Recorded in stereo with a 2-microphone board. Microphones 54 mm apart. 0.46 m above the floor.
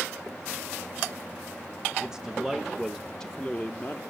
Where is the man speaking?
15° right (ahead or behind), 1.1 m; by 4.0 s 30° left (ahead or behind), 0.8 m.